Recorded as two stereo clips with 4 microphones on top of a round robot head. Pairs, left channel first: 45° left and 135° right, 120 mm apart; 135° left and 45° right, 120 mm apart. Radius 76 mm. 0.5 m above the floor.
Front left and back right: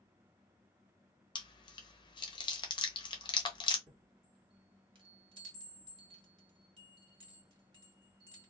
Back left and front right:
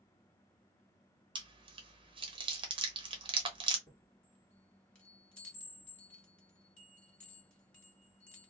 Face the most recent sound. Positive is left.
turn(degrees=-150)